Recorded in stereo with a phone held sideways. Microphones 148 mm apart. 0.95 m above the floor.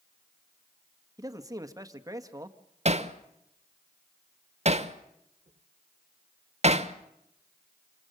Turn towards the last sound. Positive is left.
turn(degrees=-45)  # may be behind; listen again after turning